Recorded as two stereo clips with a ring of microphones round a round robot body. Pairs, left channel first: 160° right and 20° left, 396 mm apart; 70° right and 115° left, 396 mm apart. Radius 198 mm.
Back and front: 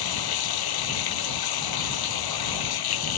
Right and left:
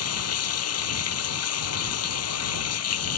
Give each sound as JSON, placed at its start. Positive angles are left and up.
{"t": 0.0, "sound": "running water", "azimuth_deg": -120}